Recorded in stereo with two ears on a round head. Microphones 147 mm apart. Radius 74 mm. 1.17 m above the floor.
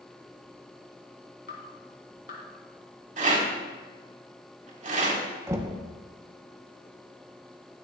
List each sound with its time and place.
1.5 s dripping: 60° left (ahead or behind), 3.5 m
3.2 s a rattle: 50° right (ahead or behind), 3 m
5.5 s knocking: 20° right (ahead or behind), 1.1 m